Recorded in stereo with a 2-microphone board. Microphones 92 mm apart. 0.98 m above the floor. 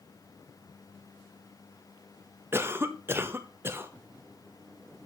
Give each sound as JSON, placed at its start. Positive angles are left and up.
{"t": 2.5, "sound": "a cough", "side_deg": -25, "distance_m": 0.7}